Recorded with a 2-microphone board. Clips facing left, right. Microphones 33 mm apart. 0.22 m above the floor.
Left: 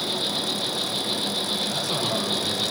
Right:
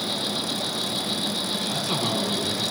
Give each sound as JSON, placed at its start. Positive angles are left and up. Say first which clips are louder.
{"t": 0.0, "sound": "an insect", "louder": "left 1 dB", "side_deg": 65, "distance_m": 9.5}
{"t": 1.6, "sound": "a man speaking", "louder": "even", "side_deg": -20, "distance_m": 6.0}